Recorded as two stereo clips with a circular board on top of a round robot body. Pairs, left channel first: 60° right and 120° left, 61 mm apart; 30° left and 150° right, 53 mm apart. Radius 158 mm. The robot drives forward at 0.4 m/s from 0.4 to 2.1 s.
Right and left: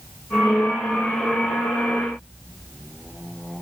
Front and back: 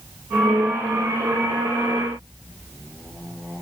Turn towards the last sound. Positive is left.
No sound to turn to.